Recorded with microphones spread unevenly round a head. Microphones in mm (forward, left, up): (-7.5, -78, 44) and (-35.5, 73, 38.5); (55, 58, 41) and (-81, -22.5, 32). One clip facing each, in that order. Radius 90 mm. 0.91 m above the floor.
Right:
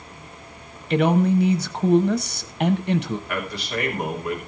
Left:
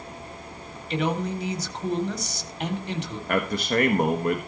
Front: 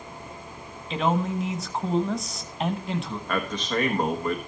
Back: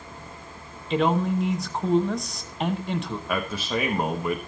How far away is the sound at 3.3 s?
About 1.4 m.